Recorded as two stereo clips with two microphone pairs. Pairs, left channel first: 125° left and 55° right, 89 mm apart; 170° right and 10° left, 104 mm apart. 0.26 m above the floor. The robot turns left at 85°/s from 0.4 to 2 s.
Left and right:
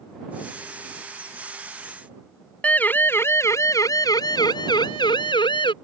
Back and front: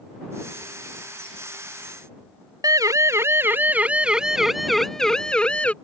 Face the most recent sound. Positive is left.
turn(degrees=110)